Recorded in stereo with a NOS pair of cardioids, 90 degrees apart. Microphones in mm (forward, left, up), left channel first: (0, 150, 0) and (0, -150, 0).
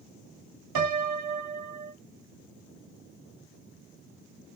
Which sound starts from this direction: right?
A piano, at 0.8 s.